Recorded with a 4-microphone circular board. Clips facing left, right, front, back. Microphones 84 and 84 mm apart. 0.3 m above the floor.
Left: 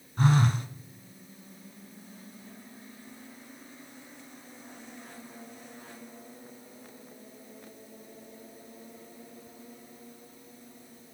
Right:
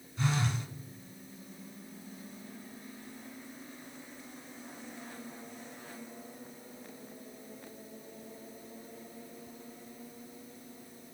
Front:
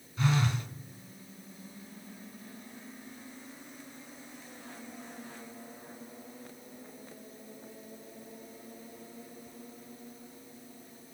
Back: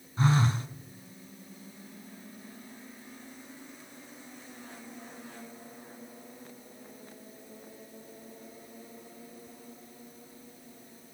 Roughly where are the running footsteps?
No running footsteps in this recording.